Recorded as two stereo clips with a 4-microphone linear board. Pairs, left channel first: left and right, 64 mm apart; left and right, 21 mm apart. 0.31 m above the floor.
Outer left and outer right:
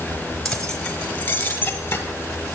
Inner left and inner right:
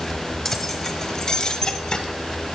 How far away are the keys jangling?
About 1.0 m.